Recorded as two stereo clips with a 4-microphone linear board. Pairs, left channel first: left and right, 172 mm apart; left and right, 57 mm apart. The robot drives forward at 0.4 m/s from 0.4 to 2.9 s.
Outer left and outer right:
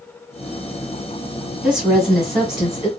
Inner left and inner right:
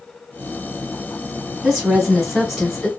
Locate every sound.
1.6 s a woman speaking: 5° right (ahead or behind), 1.5 m